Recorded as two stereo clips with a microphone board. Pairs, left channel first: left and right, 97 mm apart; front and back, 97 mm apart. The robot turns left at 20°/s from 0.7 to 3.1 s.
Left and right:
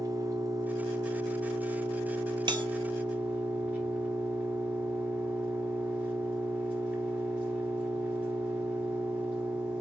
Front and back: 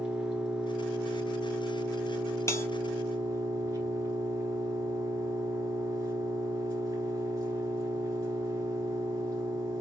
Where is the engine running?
105° right, 1.2 m; by 9.8 s 155° right, 1.2 m.